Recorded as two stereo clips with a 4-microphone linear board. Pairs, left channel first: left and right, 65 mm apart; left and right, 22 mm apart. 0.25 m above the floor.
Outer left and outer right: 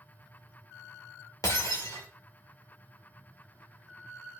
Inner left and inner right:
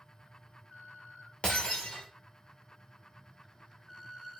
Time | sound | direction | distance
1.4 | breaking glass | 85° left | 1.8 m